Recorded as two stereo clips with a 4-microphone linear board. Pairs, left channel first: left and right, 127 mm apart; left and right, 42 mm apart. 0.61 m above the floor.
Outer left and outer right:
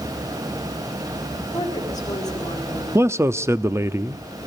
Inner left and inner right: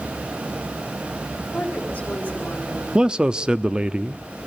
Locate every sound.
1.5 s a woman speaking: 30° left (ahead or behind), 6.5 m
3.0 s a man speaking: 20° right (ahead or behind), 0.7 m